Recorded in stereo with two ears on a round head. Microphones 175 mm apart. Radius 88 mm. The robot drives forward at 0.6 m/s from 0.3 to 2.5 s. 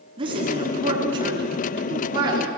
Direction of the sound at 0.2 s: 25° right (ahead or behind).